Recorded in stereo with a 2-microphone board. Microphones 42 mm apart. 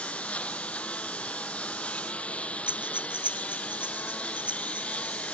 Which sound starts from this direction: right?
Breathing, at 2.7 s.